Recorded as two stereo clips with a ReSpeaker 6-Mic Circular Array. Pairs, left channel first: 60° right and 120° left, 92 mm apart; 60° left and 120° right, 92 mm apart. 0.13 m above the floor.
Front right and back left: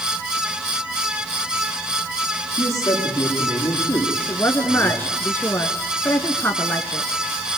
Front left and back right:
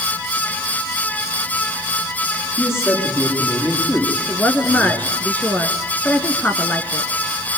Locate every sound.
2.6 s a man speaking: 5° right, 9 m
4.3 s a woman speaking: 5° right, 1.7 m